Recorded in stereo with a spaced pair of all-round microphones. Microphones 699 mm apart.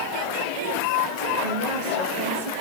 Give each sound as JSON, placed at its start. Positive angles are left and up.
{"t": 1.4, "sound": "a woman speaking", "side_deg": -80, "distance_m": 7.5}